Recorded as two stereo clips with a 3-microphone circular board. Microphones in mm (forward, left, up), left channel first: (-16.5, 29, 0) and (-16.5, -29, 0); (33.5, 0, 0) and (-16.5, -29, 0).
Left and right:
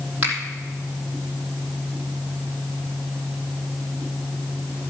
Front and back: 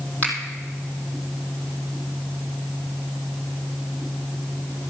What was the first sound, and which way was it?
A finger snap, 30° right.